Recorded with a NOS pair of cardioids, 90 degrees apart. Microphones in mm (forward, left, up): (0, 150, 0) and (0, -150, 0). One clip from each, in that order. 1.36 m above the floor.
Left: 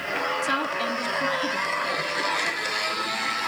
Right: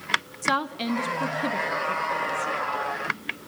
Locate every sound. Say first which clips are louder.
0.4 s a woman speaking: left 1 dB; 15° right, 0.7 m